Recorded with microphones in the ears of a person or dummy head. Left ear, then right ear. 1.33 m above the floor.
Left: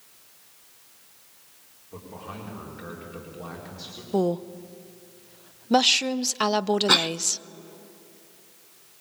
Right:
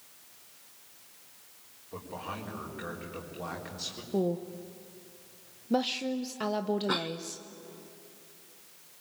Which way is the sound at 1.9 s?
20° right (ahead or behind).